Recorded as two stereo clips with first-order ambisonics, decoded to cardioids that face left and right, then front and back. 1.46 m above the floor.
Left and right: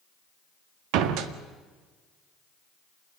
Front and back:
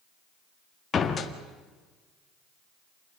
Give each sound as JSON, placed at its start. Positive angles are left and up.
{"t": 0.9, "sound": "a door slam", "azimuth_deg": -70, "distance_m": 1.9}